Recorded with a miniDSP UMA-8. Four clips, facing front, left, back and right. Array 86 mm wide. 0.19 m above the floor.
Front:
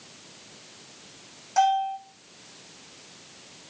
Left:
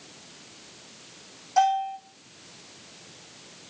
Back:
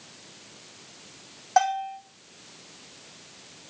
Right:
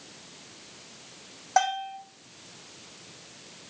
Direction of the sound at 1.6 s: 125° right.